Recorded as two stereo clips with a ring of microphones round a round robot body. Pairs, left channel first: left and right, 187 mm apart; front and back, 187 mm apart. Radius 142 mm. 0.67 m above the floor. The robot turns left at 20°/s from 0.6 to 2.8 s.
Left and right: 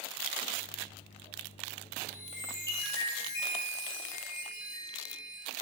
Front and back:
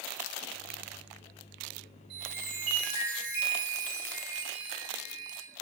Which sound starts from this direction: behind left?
A chime, at 2.1 s.